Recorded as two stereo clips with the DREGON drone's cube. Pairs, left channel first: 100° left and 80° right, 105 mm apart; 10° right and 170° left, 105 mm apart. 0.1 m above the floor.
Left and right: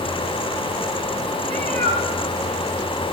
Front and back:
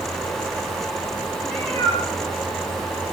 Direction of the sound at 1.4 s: 80° right.